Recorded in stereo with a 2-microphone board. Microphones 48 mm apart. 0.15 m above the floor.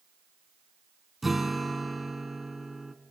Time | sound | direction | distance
1.2 | a guitar | 5° right (ahead or behind) | 0.8 m